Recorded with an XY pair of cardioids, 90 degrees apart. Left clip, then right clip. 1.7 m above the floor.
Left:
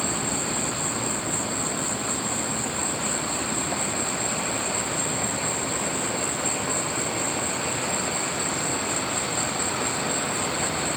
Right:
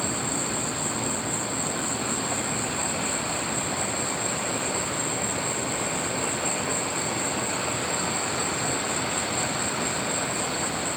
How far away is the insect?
About 1.6 m.